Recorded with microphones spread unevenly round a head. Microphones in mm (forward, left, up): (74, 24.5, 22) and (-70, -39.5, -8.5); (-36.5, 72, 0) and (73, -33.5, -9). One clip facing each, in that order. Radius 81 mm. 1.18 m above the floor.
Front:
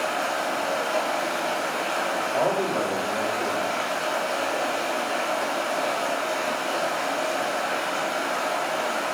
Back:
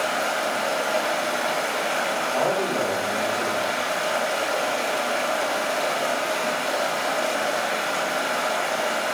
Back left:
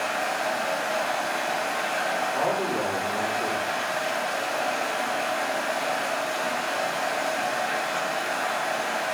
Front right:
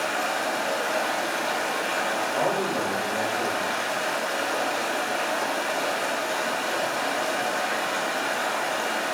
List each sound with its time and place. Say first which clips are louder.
0.0 s running water: back 1 dB, even; 75° right, 2.5 m
2.3 s a man speaking: even, front right 1 dB; 45° right, 4.5 m